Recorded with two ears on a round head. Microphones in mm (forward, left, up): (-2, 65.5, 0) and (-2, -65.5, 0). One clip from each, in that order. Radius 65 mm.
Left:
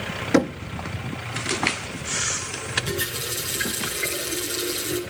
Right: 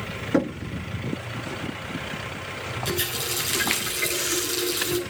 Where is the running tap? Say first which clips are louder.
Even; 50° right (ahead or behind), 7.5 m.